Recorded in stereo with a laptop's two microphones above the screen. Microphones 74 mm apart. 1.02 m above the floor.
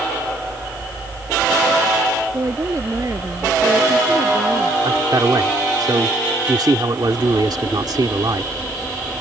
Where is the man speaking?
70° right (ahead or behind).